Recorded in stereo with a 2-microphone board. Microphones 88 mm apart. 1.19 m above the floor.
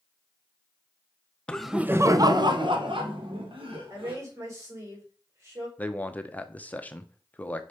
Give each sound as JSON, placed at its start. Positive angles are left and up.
{"t": 1.5, "sound": "laughter", "side_deg": 15, "distance_m": 0.7}
{"t": 3.9, "sound": "a woman speaking", "side_deg": -35, "distance_m": 4.0}
{"t": 5.8, "sound": "a man speaking", "side_deg": 15, "distance_m": 0.8}